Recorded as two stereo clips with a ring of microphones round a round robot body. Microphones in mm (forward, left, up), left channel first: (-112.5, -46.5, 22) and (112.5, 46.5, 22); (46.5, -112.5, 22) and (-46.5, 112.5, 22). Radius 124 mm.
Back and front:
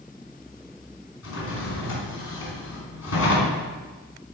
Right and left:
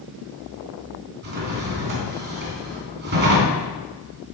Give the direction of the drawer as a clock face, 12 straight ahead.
7 o'clock.